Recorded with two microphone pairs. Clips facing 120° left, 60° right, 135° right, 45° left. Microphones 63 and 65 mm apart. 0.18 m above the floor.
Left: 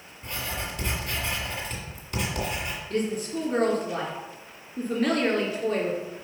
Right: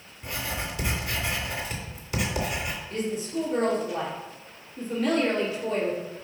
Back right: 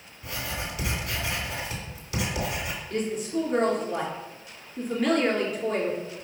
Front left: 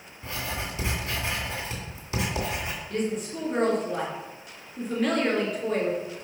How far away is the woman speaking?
About 2 m.